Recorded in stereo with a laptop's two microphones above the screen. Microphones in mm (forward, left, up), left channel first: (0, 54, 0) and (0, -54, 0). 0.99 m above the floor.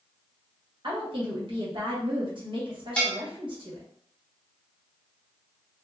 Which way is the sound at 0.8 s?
55° right (ahead or behind).